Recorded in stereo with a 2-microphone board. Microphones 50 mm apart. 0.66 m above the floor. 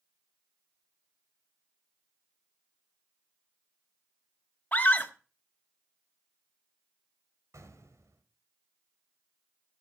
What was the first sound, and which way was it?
A scream, 35° left (ahead or behind).